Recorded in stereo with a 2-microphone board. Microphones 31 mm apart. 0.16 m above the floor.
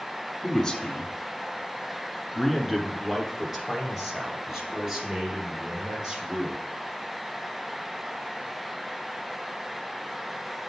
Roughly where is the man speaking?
Left.